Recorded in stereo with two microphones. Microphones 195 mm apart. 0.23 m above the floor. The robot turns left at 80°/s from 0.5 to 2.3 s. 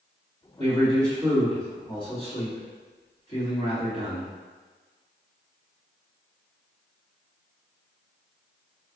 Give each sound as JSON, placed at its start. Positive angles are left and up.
{"t": 0.6, "sound": "a man speaking", "azimuth_deg": -110, "distance_m": 1.5}